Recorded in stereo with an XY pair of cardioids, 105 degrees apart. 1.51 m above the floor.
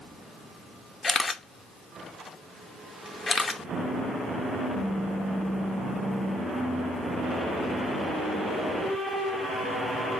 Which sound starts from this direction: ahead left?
A camera shutter, at 1.0 s.